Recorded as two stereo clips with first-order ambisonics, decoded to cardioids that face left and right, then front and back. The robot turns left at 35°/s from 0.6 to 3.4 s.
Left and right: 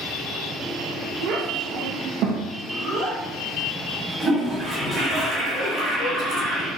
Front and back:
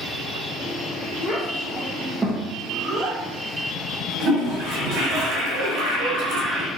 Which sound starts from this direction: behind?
A toilet flushing, at 4.2 s.